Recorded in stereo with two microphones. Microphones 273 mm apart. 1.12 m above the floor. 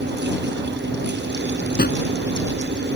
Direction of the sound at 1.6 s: 35° left (ahead or behind).